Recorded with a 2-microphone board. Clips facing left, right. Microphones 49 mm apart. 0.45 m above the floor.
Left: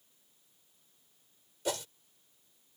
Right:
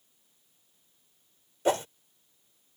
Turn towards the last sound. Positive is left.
turn(degrees=-30)  # may be behind; listen again after turning